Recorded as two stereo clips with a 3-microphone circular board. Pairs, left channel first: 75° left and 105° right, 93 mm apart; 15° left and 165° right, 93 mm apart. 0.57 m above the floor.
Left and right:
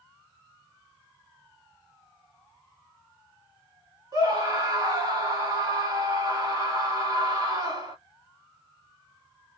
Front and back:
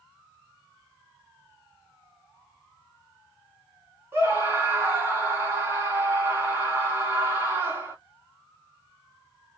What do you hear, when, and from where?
4.1 s a scream: 115° right, 1.4 m